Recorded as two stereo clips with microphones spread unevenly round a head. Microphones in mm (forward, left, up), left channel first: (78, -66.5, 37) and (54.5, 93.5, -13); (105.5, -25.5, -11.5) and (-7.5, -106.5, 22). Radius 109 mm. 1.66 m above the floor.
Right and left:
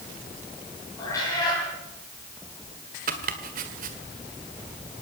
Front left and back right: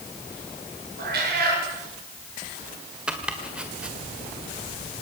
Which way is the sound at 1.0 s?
155° right.